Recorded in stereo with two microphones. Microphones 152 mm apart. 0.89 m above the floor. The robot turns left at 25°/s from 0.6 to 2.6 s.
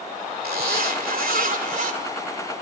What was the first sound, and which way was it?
A zipper, 95° right.